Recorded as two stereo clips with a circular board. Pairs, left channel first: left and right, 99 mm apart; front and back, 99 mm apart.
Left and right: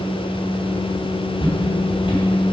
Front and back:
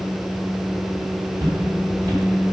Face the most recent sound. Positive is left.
turn(degrees=125)